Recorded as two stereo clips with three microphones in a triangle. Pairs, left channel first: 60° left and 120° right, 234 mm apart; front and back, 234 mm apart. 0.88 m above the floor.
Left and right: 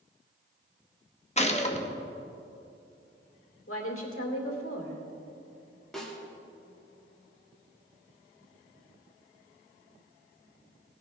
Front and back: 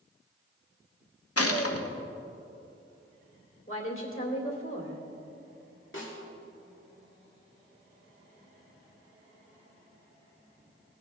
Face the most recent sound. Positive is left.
turn(degrees=-30)